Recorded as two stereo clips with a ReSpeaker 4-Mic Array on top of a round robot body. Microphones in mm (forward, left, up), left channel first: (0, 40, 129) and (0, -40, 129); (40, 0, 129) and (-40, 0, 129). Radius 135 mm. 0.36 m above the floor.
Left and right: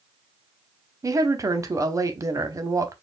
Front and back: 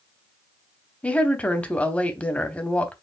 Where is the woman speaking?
70° right, 1.1 m.